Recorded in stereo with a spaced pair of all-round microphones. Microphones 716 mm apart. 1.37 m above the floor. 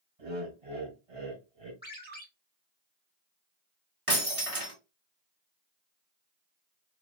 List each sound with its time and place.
0.2 s laughter: 45° right (ahead or behind), 2.5 m
1.8 s a ringtone: 10° left (ahead or behind), 1.6 m
4.1 s breaking glass: 45° right (ahead or behind), 2.5 m